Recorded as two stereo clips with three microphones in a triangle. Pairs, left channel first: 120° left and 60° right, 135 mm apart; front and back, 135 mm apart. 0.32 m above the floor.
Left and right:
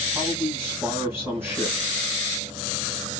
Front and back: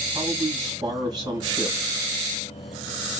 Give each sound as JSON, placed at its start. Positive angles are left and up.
{"t": 0.1, "sound": "a man speaking", "azimuth_deg": -130, "distance_m": 2.5}